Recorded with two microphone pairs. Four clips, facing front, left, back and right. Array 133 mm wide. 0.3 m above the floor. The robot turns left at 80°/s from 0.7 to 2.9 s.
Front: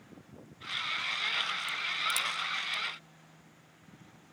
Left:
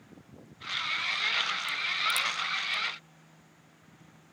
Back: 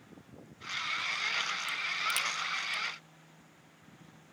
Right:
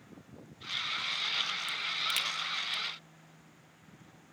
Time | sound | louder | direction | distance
1.7 | a crack | left 5 dB, even | 65° right | 0.6 m